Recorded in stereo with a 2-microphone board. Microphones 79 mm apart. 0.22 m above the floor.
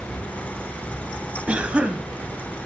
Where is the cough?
15° right (ahead or behind), 1.0 m.